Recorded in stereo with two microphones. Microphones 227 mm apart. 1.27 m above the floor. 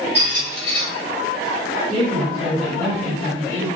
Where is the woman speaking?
25° right (ahead or behind), 1.6 m.